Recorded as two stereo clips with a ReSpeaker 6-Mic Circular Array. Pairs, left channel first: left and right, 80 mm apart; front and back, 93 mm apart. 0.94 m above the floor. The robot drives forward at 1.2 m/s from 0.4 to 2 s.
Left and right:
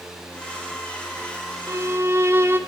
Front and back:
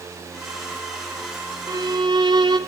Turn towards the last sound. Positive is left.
turn(degrees=-145)